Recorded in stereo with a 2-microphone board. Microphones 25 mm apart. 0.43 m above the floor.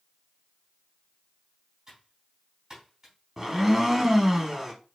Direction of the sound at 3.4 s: 15° right (ahead or behind).